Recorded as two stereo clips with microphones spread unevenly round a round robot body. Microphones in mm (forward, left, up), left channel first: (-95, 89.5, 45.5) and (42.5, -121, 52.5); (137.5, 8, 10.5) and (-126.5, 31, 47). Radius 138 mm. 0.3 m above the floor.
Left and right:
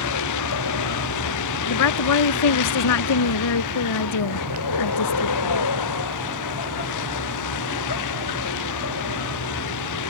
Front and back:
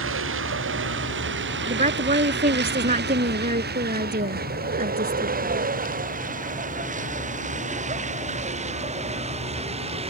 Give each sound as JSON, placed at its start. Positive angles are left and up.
{"t": 0.0, "sound": "a vehicle", "azimuth_deg": 130}
{"t": 1.7, "sound": "a woman speaking", "azimuth_deg": 115}